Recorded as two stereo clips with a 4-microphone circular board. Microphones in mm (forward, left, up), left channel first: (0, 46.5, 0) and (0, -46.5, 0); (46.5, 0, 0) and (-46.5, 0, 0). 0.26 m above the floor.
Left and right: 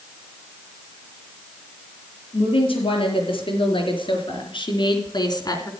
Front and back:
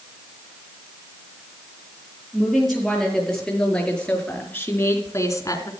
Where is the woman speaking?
90° left, 6.5 m; by 5.7 s 45° left, 3 m.